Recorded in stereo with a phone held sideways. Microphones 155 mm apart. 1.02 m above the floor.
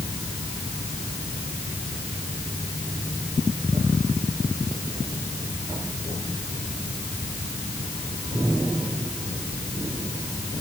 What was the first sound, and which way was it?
Only background noise.